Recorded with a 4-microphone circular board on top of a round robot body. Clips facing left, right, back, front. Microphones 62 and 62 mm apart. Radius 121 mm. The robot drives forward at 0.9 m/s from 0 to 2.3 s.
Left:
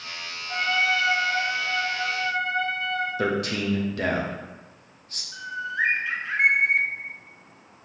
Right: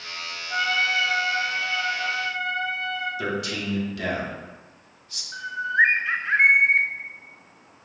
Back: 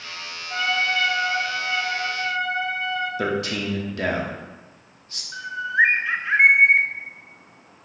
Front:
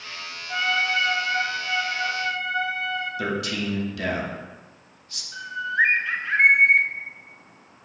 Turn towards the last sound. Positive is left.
turn(degrees=-120)